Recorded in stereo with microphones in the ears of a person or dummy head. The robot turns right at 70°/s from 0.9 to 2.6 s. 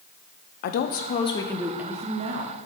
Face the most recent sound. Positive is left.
turn(degrees=-115)